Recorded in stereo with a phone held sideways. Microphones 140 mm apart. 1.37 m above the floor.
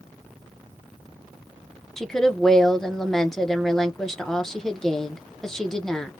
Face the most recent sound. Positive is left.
turn(degrees=5)  # may be behind; listen again after turning